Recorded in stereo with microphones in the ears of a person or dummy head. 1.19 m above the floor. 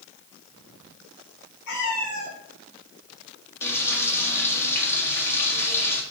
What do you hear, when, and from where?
1.7 s a cat meowing: 55° left (ahead or behind), 2.5 m
3.6 s frying: 15° left (ahead or behind), 1.0 m